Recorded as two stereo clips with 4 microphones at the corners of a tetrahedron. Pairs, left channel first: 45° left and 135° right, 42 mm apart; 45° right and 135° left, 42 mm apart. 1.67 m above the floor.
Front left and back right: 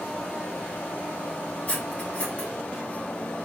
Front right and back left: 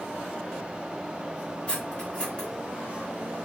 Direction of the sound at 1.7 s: 5° left.